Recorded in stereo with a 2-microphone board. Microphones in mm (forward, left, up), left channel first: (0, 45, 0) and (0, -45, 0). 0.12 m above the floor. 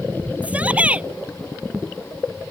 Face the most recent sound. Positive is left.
turn(degrees=-15)  # may be behind; listen again after turning